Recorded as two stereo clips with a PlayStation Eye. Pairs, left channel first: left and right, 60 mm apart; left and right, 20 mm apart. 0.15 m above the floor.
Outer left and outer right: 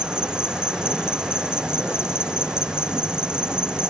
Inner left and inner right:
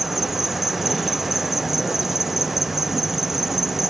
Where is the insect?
15° right (ahead or behind).